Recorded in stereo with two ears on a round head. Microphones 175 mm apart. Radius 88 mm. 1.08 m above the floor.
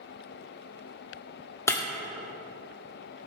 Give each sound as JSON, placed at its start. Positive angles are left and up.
{"t": 1.7, "sound": "breaking glass", "side_deg": 15, "distance_m": 1.2}